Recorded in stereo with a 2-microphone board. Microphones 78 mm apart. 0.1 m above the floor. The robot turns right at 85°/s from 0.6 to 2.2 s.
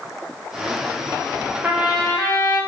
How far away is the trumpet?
About 6 m.